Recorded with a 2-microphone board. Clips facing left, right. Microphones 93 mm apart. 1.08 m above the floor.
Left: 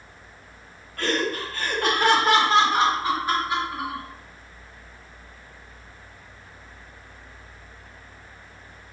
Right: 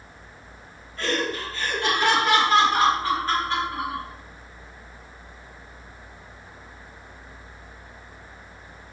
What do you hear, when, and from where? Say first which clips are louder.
1.0 s laughter: left 1 dB; 55° left (ahead or behind), 1.2 m; by 4.0 s centre (ahead or behind), 1.4 m